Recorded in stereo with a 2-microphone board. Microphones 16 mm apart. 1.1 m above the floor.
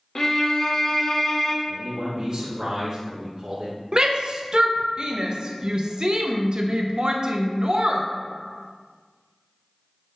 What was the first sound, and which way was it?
A violin, 40° left (ahead or behind).